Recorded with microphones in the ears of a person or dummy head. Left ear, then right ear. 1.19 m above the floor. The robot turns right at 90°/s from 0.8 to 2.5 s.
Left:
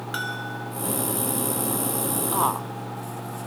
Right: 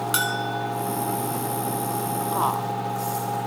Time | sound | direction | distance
0.1 | a bell | 20° right (ahead or behind) | 1.5 m
2.3 | a woman speaking | 25° left (ahead or behind) | 0.6 m